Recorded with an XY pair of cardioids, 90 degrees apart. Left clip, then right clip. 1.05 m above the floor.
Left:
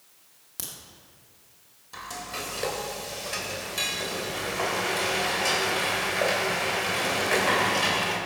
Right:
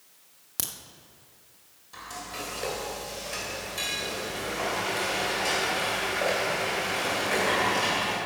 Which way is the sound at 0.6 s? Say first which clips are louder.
Right 4 dB; 45° right.